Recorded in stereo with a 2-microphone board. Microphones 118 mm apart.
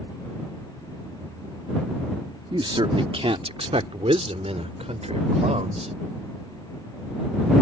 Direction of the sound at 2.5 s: 45° right (ahead or behind).